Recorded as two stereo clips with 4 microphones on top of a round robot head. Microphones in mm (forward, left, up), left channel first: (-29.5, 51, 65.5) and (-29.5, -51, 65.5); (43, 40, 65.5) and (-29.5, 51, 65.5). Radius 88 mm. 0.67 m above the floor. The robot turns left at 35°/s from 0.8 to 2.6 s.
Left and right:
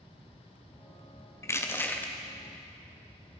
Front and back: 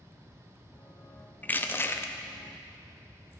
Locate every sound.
1.4 s crushing: 45° left, 1.0 m; by 2.1 s 20° left, 1.0 m